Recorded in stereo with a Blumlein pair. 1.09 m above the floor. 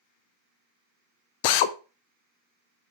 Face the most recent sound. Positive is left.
turn(degrees=45)